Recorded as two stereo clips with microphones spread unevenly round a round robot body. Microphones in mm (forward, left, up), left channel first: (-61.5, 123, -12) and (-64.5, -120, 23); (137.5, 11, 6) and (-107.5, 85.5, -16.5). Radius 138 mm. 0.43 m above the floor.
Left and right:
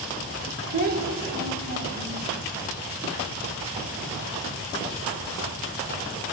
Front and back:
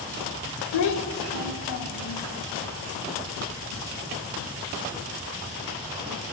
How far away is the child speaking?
About 1.4 m.